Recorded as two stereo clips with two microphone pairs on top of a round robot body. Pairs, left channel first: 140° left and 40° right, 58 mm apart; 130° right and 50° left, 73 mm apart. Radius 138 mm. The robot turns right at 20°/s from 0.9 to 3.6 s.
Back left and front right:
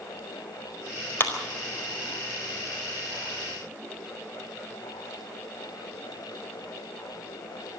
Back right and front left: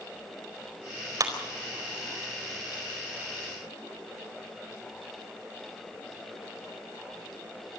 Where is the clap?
90° left, 4.5 m.